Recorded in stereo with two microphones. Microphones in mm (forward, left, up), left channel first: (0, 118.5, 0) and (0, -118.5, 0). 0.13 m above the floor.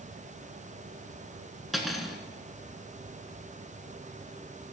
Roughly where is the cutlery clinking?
Centre.